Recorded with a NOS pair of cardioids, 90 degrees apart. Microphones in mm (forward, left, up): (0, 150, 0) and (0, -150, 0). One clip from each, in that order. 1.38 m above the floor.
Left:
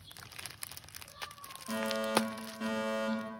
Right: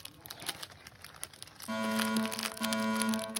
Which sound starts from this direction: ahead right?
A fire alarm, at 1.7 s.